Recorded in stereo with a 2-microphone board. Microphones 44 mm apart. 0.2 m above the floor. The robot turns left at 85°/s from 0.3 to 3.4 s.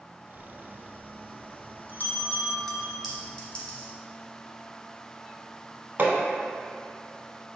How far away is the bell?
About 0.6 m.